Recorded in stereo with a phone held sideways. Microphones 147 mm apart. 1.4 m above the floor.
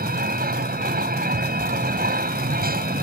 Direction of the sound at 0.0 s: 80° right.